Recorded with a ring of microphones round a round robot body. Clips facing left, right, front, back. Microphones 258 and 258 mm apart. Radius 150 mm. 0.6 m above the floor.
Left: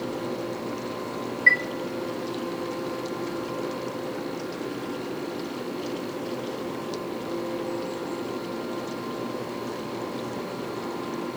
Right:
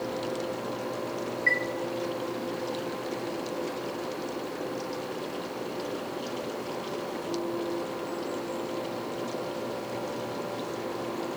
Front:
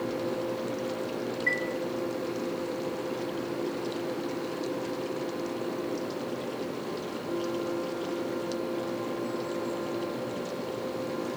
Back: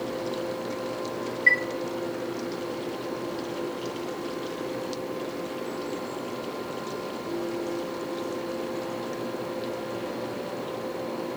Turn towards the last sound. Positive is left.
turn(degrees=130)